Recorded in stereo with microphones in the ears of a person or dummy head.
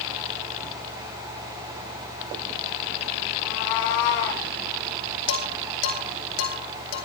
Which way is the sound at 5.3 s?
75° left (ahead or behind).